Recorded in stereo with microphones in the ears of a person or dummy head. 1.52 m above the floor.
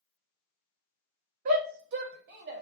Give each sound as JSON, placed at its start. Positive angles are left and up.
{"t": 1.4, "sound": "a shout", "side_deg": -45, "distance_m": 0.8}